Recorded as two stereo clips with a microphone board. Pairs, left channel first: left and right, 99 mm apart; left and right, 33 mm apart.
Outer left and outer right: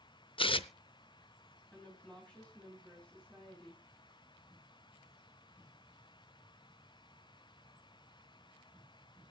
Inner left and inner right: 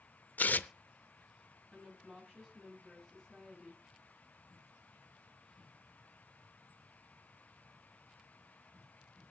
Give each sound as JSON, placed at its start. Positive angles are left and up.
{"t": 0.4, "sound": "tearing paper", "side_deg": 60, "distance_m": 0.6}
{"t": 1.7, "sound": "a woman speaking", "side_deg": 15, "distance_m": 4.0}